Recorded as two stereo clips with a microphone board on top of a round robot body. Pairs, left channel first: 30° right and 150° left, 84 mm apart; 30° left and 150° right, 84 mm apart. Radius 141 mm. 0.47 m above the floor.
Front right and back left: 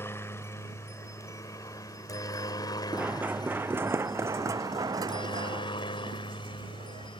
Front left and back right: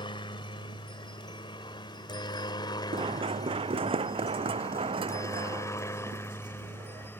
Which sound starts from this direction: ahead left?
A helicopter, at 0.0 s.